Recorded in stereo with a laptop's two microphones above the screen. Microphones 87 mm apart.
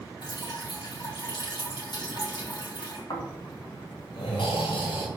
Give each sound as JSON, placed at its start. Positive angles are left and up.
{"t": 0.2, "sound": "dripping", "side_deg": 60, "distance_m": 1.9}
{"t": 3.1, "sound": "snoring", "side_deg": 70, "distance_m": 2.0}